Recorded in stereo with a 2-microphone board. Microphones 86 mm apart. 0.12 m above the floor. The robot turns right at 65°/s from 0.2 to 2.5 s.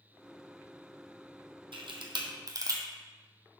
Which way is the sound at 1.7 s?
75° right (ahead or behind).